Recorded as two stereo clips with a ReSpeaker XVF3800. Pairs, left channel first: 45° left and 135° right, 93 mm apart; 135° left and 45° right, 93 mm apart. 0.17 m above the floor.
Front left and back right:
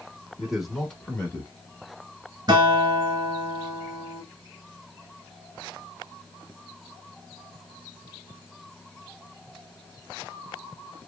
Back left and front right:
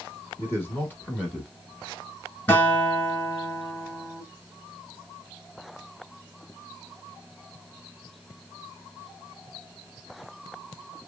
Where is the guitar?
160° right, 1.7 m.